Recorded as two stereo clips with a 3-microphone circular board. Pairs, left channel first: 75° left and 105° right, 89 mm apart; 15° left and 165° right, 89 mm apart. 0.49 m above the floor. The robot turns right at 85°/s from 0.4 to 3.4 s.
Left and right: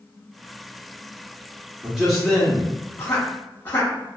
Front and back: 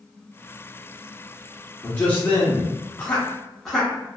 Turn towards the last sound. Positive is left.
turn(degrees=100)